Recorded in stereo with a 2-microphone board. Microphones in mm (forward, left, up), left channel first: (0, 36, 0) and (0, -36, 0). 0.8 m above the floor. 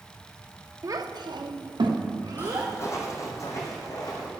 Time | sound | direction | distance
0.8 | a child speaking | 45° right (ahead or behind) | 0.6 m
2.4 | footsteps | 30° left (ahead or behind) | 1.2 m